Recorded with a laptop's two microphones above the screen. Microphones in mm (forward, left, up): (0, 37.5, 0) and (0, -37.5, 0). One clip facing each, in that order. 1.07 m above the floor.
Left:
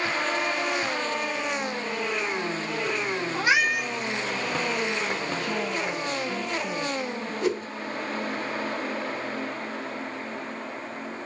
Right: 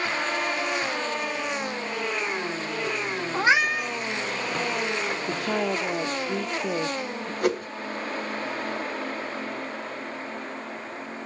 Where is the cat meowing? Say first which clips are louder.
Right 2 dB; 30° right (ahead or behind), 1.3 m.